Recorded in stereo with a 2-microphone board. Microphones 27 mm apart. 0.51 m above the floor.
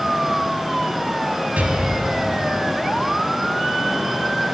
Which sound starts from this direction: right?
An explosion, at 1.6 s.